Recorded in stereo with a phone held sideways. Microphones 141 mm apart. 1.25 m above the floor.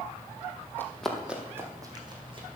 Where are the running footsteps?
15° left (ahead or behind), 1.9 m; by 2.5 s 40° right (ahead or behind), 3 m.